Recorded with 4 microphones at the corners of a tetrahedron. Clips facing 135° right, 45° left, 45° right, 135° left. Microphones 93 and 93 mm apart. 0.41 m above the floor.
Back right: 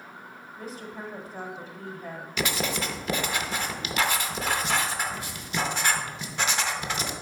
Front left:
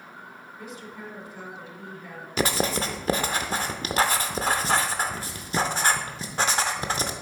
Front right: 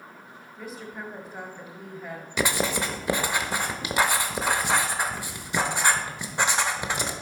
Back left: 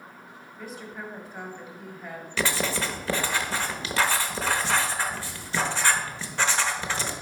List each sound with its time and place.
0.6 s a woman speaking: 115° right, 1.1 m
2.4 s writing: 15° left, 0.7 m